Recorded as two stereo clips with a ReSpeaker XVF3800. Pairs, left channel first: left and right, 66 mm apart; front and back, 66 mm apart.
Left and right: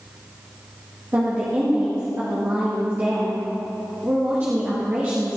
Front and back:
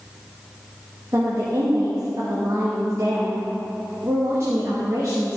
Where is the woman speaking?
145° right, 2 m.